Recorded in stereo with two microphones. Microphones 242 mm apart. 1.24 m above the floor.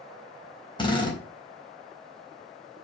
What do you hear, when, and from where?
0.8 s a drill: 20° left (ahead or behind), 4 m